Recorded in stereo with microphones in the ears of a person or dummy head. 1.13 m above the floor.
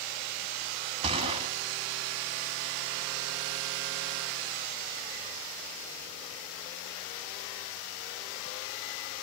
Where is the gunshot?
25° right (ahead or behind), 1.6 m.